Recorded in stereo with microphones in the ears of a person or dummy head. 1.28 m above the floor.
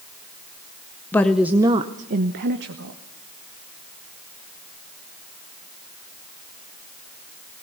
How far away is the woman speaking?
About 0.9 m.